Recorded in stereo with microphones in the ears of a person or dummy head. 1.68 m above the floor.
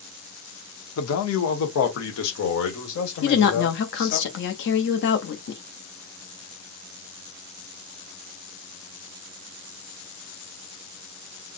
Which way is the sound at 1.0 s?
75° left (ahead or behind).